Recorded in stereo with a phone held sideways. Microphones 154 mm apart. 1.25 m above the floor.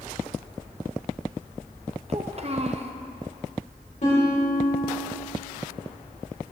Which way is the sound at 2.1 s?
45° right (ahead or behind).